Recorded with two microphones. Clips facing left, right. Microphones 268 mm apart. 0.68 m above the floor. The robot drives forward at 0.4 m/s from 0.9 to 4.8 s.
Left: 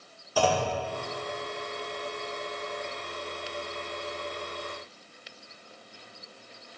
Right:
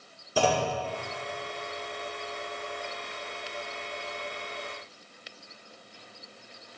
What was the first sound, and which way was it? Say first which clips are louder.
A clunk: even; 25° right (ahead or behind).